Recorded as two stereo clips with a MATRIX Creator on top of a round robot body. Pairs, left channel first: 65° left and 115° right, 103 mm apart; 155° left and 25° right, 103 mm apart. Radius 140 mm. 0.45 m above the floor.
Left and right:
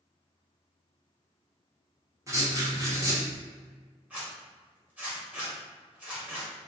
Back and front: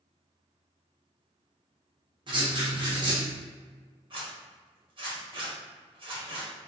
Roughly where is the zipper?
Ahead right.